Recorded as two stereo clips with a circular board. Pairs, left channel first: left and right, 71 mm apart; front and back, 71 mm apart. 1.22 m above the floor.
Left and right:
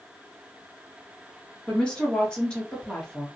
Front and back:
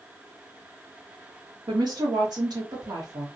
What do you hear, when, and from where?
1.7 s a woman speaking: 165° left, 1.4 m